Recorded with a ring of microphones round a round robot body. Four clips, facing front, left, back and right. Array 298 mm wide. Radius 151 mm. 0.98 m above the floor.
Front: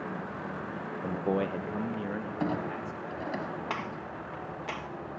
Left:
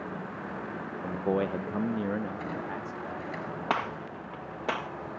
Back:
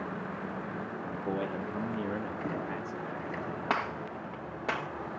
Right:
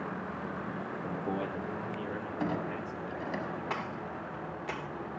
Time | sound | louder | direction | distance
1.0 | a man speaking | left 7 dB, front 5 dB | 20° left | 0.9 m
2.4 | a clunk | right 1 dB, front 3 dB | 30° right | 6 m
3.7 | a gunshot | left 5 dB, back 3 dB | 110° left | 1.1 m